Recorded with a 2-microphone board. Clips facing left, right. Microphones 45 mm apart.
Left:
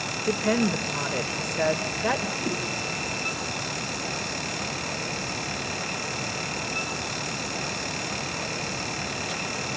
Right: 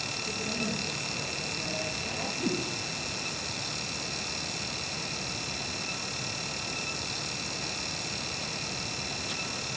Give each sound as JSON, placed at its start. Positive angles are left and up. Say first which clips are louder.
{"t": 0.3, "sound": "a woman speaking", "louder": "left 11 dB", "side_deg": 80, "distance_m": 3.0}
{"t": 2.4, "sound": "a whoosh", "louder": "left 2 dB", "side_deg": -15, "distance_m": 5.5}